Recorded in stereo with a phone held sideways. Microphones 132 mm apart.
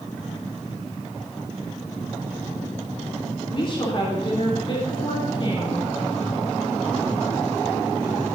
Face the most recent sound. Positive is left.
turn(degrees=40)  # may be behind; listen again after turning